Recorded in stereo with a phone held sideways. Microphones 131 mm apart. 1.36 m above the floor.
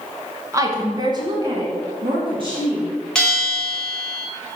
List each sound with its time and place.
0.5 s a woman speaking: 25° right (ahead or behind), 1.0 m; by 2.9 s 40° right (ahead or behind), 3 m
3.1 s a bell: 10° left (ahead or behind), 2.5 m